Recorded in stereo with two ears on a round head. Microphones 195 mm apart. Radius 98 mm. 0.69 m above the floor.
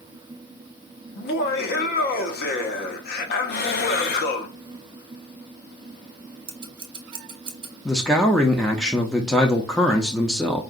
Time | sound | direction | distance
1.1 | laughter | 45° left (ahead or behind) | 1.0 m
3.5 | breathing | 45° left (ahead or behind) | 0.7 m
6.5 | scissors | 20° right (ahead or behind) | 1.0 m
7.8 | a man speaking | 5° left (ahead or behind) | 0.6 m